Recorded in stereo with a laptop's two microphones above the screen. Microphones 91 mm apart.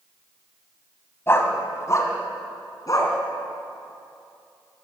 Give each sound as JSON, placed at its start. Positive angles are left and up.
{"t": 1.3, "sound": "a dog barking", "side_deg": 25, "distance_m": 2.5}